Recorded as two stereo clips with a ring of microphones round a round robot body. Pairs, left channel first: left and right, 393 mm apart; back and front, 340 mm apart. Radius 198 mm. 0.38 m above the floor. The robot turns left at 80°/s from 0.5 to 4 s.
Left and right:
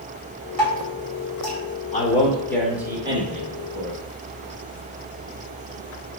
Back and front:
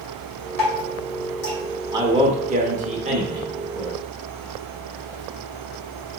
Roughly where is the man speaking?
Ahead left.